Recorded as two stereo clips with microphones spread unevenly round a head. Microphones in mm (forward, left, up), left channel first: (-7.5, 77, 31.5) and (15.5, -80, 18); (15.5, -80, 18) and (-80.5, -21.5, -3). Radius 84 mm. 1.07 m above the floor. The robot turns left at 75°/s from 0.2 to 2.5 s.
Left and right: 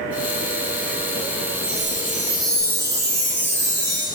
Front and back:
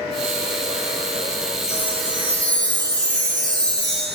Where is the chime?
90° right, 8 m; by 4.0 s 155° right, 8 m.